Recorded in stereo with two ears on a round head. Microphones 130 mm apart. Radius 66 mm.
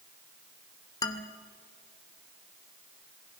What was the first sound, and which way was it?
A man speaking, 25° left (ahead or behind).